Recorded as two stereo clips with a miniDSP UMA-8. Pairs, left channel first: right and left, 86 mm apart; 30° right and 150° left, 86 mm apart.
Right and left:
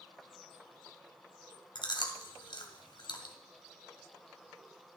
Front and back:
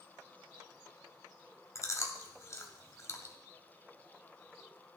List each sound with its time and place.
1.8 s chewing: 80° right, 2 m